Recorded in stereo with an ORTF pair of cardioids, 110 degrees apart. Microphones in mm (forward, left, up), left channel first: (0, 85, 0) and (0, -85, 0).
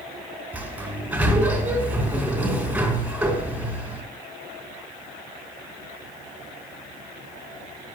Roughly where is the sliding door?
Ahead.